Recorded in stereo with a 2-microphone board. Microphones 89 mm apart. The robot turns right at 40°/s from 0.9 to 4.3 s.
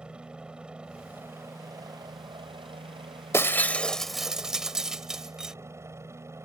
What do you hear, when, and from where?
0.0 s a helicopter: 170° right; by 6.5 s 35° right
3.3 s breaking glass: 30° left (ahead or behind); by 5.5 s 5° right (ahead or behind)